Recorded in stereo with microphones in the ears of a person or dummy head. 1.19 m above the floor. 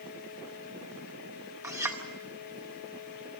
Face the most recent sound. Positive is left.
turn(degrees=-20)  # may be behind; listen again after turning